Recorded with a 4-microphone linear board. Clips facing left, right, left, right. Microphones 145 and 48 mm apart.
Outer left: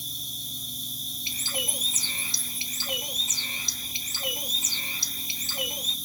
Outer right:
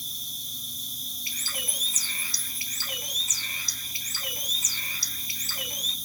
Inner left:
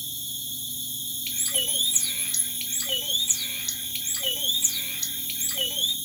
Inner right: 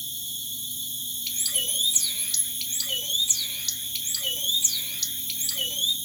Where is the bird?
25° left (ahead or behind), 0.8 m.